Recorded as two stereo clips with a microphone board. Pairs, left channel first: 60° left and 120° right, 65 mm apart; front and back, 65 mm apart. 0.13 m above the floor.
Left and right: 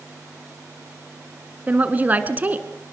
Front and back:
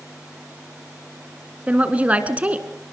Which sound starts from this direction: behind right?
A woman speaking, at 1.7 s.